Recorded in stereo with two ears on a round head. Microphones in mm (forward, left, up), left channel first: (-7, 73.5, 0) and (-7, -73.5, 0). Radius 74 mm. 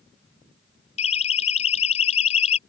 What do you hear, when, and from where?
1.0 s a siren: 40° left (ahead or behind)